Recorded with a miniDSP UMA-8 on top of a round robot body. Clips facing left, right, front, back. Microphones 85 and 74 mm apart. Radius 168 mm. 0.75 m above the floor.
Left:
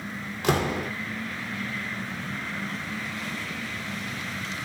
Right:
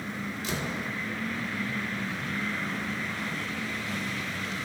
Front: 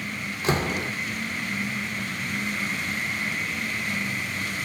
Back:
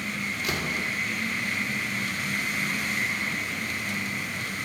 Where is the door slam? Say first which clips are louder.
Left 11 dB, front 7 dB; 60° left, 2 m.